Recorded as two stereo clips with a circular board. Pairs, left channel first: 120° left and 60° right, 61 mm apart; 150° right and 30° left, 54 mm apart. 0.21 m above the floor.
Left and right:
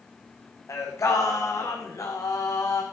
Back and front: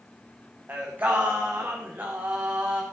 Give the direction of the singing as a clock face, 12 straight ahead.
9 o'clock.